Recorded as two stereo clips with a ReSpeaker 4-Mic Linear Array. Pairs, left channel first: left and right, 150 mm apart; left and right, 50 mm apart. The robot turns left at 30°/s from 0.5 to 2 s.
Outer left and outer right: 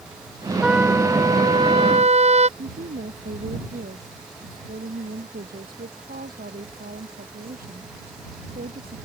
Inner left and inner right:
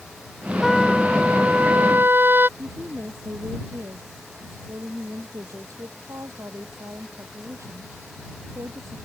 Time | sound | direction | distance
0.6 | a trumpet | 5° right | ?
2.6 | a woman speaking | 75° right (ahead or behind) | ?